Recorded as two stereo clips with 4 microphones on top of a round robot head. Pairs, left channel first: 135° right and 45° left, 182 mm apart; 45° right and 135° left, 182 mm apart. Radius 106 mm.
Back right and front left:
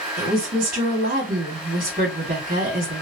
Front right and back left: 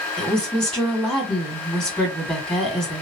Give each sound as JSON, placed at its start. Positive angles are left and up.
{"t": 0.2, "sound": "a woman speaking", "azimuth_deg": 40, "distance_m": 1.8}